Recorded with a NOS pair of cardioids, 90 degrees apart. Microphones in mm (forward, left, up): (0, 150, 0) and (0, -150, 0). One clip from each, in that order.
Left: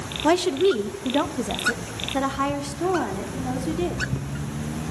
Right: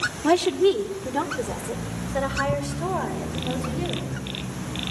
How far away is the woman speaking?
About 1.1 m.